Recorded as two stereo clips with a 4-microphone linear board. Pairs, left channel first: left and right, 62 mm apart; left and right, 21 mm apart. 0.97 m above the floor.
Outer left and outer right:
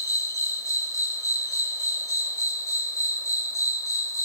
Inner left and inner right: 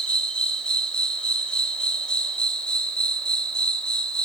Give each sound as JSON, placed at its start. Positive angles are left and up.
{"t": 0.0, "sound": "an insect", "side_deg": 55, "distance_m": 1.0}